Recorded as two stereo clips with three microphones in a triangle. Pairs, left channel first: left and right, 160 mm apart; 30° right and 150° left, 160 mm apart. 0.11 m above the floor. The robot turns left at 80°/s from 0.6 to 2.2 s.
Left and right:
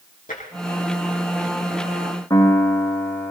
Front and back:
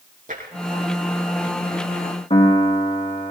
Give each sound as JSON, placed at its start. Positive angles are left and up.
{"t": 0.3, "sound": "tapping", "azimuth_deg": 120, "distance_m": 4.5}
{"t": 2.3, "sound": "a piano", "azimuth_deg": 20, "distance_m": 5.0}